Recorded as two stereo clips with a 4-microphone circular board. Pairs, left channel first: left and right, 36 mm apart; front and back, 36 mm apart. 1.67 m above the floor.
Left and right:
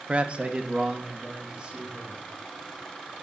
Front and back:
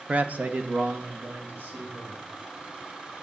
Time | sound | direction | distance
0.1 | a man speaking | 135° right | 0.9 m